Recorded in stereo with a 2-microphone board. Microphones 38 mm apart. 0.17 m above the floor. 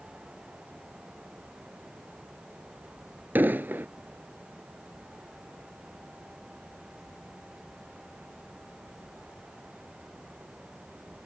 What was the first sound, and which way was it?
An explosion, 55° right (ahead or behind).